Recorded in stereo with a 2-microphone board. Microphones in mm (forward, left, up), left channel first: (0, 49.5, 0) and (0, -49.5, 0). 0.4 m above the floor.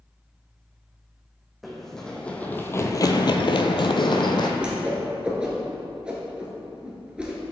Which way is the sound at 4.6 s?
10° right (ahead or behind).